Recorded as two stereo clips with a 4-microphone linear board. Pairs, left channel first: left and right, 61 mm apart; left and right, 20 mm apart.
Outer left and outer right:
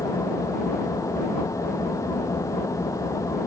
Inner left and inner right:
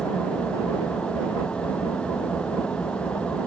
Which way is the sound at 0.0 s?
65° left (ahead or behind).